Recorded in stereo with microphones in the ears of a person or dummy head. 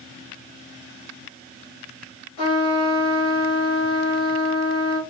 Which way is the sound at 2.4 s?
40° left (ahead or behind).